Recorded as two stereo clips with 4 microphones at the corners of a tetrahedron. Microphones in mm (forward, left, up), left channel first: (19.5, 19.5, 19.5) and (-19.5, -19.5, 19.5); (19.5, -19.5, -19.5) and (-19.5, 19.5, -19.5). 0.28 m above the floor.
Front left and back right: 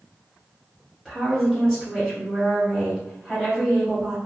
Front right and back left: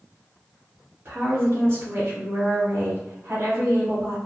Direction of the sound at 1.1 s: 140° left.